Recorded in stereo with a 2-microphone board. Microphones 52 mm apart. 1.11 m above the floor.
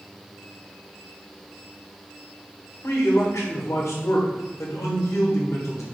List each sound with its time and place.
2.8 s a man speaking: 65° left (ahead or behind), 1.1 m